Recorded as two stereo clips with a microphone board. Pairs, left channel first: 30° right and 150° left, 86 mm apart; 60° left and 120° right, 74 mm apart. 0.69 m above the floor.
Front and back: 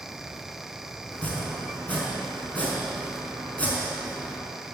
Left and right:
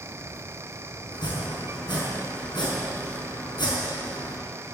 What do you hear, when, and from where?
1.1 s chopping: 45° left, 5 m